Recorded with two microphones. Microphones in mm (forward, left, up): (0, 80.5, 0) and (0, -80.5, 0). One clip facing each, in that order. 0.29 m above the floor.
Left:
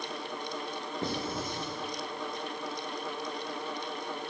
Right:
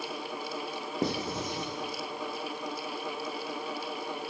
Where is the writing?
75° right (ahead or behind), 5 m.